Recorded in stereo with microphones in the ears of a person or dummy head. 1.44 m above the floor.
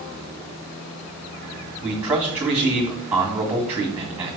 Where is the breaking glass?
No breaking glass in this recording.